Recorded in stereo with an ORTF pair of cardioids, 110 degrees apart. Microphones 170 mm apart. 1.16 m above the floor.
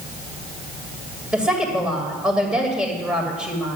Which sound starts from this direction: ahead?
A woman speaking, at 1.3 s.